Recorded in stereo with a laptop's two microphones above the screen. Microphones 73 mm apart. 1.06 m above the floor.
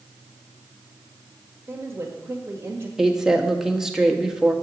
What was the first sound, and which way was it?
A woman speaking, 35° right (ahead or behind).